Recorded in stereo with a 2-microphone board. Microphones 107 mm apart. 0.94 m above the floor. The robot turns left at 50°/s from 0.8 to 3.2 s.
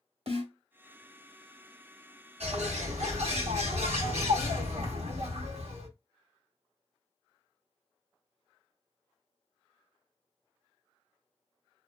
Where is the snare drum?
60° right (ahead or behind), 1.1 m.